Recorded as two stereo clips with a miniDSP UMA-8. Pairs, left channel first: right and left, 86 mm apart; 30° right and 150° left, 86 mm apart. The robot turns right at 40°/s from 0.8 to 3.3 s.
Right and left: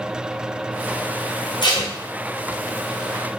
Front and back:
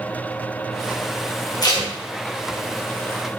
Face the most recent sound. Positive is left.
turn(degrees=-5)